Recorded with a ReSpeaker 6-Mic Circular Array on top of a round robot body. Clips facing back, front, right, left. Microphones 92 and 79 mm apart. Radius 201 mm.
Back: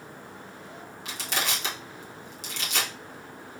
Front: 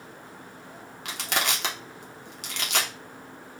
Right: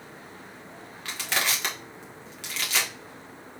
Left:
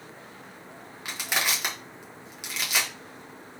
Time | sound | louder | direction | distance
1.1 | crushing | front 3 dB, even | 15° left | 1.5 m